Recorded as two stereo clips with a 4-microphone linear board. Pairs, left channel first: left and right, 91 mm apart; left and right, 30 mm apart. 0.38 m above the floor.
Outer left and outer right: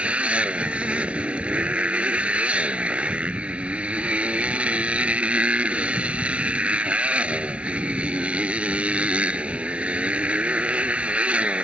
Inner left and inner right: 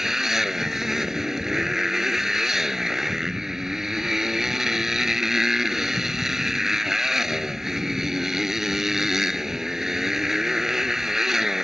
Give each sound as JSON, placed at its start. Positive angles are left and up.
{"t": 0.0, "sound": "a motorcycle", "side_deg": -15}